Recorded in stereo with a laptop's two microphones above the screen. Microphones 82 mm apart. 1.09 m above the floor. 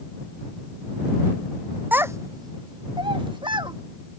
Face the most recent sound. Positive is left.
turn(degrees=-85)